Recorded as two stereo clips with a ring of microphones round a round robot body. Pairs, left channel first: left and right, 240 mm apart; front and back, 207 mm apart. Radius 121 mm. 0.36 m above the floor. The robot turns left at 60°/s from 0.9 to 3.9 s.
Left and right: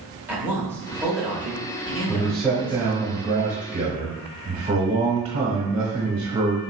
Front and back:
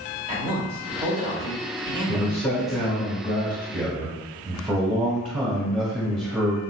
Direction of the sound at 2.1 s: 20° left.